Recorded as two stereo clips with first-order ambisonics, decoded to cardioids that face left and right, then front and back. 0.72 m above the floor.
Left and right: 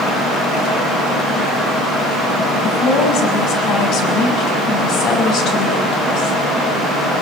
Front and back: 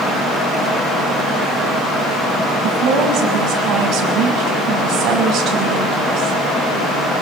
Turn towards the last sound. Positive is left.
turn(degrees=130)